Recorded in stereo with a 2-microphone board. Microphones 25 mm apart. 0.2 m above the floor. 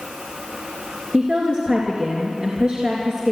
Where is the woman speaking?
40° right (ahead or behind), 3 m.